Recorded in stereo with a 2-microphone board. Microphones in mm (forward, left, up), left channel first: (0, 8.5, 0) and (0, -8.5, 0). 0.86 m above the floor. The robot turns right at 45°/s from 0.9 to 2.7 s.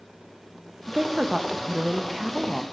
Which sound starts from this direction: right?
A woman speaking, at 0.9 s.